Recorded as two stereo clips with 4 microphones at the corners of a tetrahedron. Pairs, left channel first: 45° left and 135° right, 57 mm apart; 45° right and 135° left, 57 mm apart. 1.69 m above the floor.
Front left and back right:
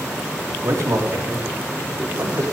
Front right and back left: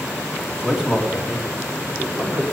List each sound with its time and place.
0.6 s a man speaking: 150° right, 4 m; by 2.4 s 165° right, 4.5 m